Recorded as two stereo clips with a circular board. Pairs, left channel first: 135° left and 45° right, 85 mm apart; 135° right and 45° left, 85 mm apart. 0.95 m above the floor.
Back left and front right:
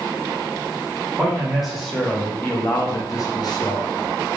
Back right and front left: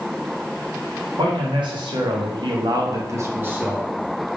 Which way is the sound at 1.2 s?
35° left.